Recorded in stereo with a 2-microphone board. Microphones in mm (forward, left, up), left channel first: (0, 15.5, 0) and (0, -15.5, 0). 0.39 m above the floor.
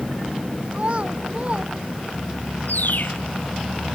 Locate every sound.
0.7 s a child speaking: 40° right (ahead or behind); by 2.5 s 35° right (ahead or behind)
2.7 s a bird: 70° left (ahead or behind)